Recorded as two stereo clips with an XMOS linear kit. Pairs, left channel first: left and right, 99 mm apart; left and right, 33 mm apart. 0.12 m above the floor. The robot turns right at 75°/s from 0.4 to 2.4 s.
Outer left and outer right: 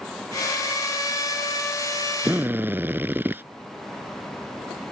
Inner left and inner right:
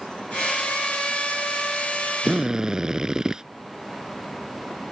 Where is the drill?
15° right (ahead or behind); by 3.4 s 20° right (ahead or behind).